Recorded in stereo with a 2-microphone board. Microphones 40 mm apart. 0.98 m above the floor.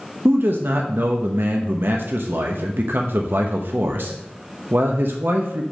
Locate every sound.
0.2 s a man speaking: 70° right (ahead or behind), 0.7 m